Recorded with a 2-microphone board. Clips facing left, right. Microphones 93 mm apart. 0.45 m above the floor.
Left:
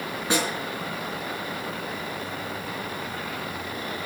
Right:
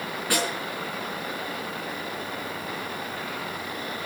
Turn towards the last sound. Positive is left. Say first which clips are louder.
# left 2 dB
turn(degrees=20)  # may be behind; listen again after turning